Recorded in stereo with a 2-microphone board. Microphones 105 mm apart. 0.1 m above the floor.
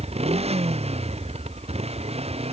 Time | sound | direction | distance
0.0 | a motorcycle | 85° right | ?